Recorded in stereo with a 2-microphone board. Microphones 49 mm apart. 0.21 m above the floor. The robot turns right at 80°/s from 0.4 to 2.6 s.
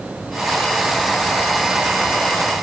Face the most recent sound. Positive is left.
No sound to turn to.